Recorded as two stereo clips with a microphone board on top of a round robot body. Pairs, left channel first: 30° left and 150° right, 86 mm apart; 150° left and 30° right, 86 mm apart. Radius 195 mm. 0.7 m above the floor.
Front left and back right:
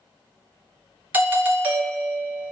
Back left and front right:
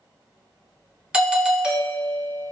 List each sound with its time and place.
1.1 s a doorbell: 100° right, 0.9 m